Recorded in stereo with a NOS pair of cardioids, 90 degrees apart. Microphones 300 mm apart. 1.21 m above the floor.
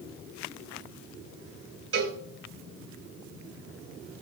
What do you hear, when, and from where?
1.9 s a cowbell: 50° right, 3 m